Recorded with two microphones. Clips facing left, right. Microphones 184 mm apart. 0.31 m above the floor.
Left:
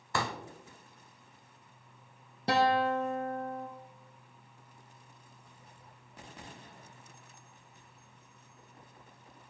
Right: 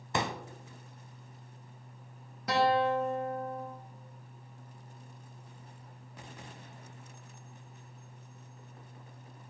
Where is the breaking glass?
I don't hear breaking glass.